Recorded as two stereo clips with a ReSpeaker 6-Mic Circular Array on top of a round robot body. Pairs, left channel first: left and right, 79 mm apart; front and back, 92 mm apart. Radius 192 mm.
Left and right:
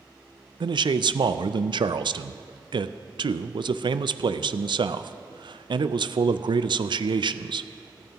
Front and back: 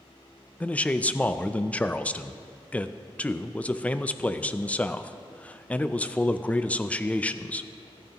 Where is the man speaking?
75° right, 0.5 m.